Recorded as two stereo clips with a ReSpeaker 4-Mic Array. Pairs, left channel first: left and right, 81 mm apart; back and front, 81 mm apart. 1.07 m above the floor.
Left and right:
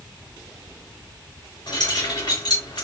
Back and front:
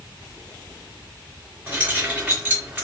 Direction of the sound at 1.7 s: 65° left.